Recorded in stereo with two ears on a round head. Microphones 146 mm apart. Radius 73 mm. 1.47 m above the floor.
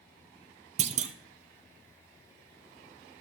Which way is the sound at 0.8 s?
45° right (ahead or behind).